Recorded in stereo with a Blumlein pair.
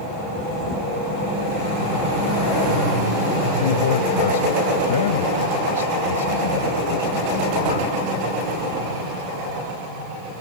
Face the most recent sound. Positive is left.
turn(degrees=65)